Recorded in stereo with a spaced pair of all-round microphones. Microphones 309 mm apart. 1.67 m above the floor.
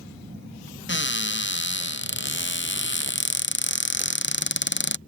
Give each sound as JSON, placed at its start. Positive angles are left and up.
{"t": 0.9, "sound": "a cupboard door", "side_deg": 35}